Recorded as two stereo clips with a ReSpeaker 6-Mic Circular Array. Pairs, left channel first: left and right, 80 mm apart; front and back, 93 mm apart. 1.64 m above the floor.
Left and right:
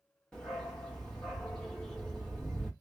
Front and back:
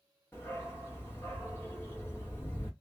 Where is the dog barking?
20° left, 1.1 m.